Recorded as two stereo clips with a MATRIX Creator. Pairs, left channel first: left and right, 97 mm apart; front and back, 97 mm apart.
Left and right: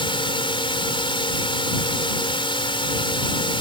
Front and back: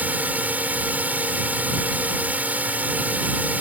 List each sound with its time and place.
0.0 s a drone: 110° left